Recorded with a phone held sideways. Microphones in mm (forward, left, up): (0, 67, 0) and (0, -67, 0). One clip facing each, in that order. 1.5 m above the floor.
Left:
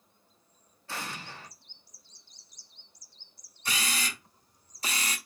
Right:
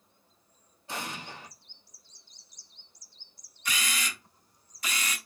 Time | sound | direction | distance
0.9 | an explosion | 20° right (ahead or behind) | 0.9 m
3.6 | a camera shutter | 35° left (ahead or behind) | 1.0 m